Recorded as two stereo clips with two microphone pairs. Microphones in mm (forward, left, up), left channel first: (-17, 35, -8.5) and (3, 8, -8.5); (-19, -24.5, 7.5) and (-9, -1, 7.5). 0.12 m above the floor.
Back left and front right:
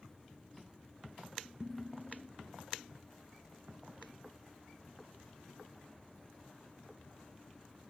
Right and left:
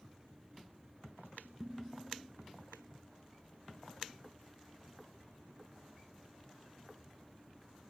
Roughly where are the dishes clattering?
Ahead.